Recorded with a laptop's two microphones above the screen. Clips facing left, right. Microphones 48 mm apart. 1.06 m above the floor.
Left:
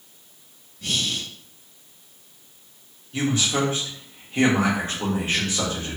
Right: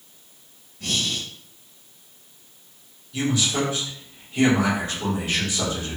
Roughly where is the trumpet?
I don't hear a trumpet.